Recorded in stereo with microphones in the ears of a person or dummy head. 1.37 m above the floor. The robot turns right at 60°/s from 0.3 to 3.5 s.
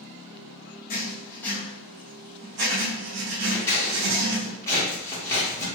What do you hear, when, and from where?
0.9 s writing: 135° left, 0.8 m; by 4.5 s 70° right, 0.8 m
3.5 s scissors: 20° left (ahead or behind), 1.2 m